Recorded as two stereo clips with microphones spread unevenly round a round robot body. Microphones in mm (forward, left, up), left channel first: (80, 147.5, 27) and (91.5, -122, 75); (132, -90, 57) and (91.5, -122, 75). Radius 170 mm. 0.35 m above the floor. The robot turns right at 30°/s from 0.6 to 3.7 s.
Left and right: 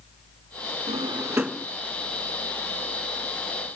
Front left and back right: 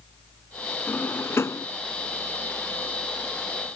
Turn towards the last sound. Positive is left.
turn(degrees=65)